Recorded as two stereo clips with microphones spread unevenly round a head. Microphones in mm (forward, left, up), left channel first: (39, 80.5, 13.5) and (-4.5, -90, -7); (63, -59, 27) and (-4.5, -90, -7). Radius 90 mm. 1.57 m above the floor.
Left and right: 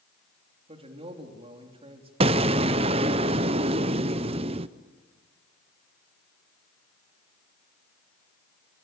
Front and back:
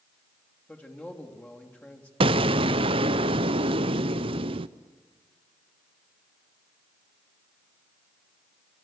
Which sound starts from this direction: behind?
An explosion, at 2.2 s.